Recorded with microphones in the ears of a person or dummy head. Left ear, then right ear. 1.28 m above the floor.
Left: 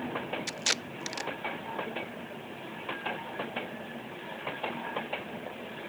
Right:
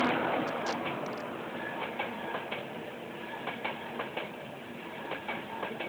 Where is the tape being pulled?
70° left (ahead or behind).